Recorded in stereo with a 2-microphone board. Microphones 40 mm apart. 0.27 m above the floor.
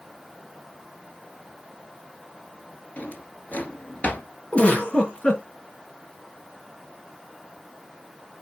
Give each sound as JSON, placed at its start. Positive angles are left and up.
{"t": 3.0, "sound": "a drawer", "side_deg": 40, "distance_m": 1.8}
{"t": 4.5, "sound": "a giggle", "side_deg": 30, "distance_m": 3.5}